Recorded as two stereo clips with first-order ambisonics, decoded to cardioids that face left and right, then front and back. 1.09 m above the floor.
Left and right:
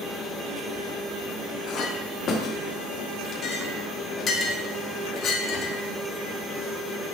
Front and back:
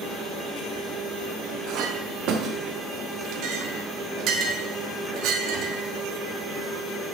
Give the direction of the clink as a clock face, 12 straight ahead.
7 o'clock.